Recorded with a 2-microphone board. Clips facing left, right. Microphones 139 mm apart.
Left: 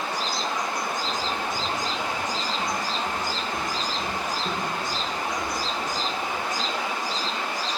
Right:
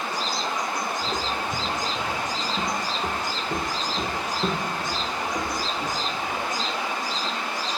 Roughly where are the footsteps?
Right.